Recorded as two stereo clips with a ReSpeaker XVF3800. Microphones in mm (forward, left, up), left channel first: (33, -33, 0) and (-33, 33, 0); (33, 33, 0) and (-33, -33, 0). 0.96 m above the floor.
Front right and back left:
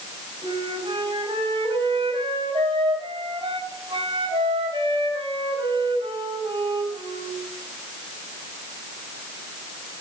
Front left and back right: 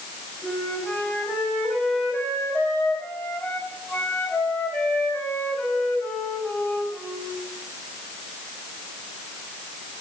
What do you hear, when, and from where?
0.4 s a flute: 115° left, 3 m